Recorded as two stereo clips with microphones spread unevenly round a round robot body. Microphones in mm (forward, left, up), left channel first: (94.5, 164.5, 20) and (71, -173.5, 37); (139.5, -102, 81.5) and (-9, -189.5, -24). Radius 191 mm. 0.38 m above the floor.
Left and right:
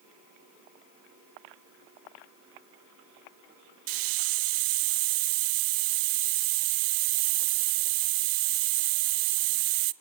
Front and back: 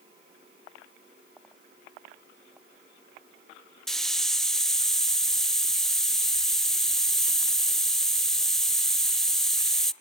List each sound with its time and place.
3.9 s a hiss: 75° right, 0.6 m